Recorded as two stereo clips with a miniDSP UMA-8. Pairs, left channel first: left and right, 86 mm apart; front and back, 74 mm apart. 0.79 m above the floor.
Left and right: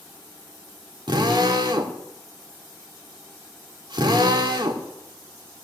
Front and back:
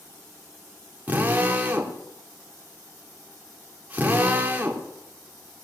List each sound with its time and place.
1.1 s a drill: 115° right, 2.0 m